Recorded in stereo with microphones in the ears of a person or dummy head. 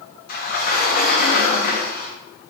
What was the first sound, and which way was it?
A sliding door, 50° left (ahead or behind).